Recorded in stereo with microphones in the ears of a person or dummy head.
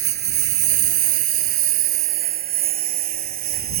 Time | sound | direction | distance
0.0 | a lawn mower | 55° right (ahead or behind) | ?